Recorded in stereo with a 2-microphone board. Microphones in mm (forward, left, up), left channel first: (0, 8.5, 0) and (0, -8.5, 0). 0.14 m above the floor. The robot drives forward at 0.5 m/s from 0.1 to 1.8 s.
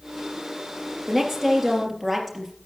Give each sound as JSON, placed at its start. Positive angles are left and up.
{"t": 1.1, "sound": "a woman speaking", "side_deg": -5, "distance_m": 3.0}